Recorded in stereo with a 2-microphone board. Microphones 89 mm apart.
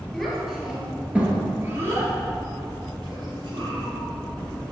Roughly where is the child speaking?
Centre.